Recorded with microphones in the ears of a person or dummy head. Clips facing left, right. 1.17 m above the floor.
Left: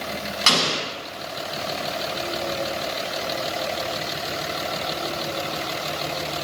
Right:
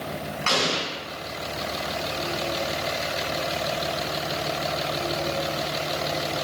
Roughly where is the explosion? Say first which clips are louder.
Left 1 dB; left.